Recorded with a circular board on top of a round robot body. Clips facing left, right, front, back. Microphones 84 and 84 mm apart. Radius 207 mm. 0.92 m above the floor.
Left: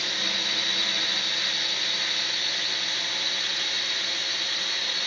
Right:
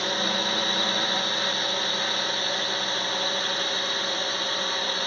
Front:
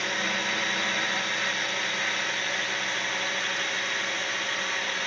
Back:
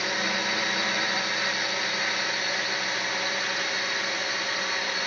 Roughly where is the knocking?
I don't hear knocking.